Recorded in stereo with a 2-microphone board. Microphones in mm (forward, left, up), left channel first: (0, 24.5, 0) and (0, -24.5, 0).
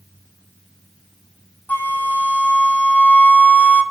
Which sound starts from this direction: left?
A flute, at 1.7 s.